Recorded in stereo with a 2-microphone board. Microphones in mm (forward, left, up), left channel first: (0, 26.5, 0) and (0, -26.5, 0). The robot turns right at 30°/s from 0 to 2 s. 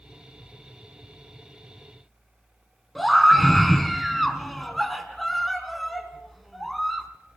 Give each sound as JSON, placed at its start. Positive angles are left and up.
{"t": 3.0, "sound": "a scream", "side_deg": 0, "distance_m": 3.0}